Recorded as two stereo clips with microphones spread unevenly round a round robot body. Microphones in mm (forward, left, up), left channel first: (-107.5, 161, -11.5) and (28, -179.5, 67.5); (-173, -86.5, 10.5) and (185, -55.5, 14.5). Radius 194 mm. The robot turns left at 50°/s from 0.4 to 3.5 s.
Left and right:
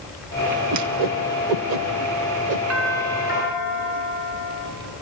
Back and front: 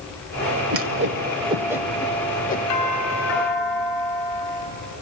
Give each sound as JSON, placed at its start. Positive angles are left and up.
{"t": 0.7, "sound": "a whoosh", "azimuth_deg": -25, "distance_m": 1.1}
{"t": 2.7, "sound": "a doorbell", "azimuth_deg": -160, "distance_m": 5.0}